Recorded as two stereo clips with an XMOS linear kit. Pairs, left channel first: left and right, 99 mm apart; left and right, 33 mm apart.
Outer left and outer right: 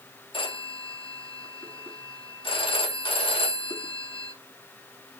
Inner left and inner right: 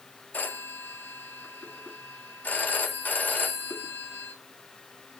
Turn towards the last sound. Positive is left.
turn(degrees=60)  # may be behind; listen again after turning